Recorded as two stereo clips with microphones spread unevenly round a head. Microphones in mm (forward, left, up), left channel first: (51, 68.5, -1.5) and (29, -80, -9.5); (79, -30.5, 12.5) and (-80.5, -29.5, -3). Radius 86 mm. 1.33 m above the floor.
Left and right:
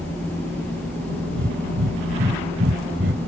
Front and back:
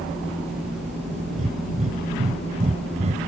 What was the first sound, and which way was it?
Breathing, 130° right.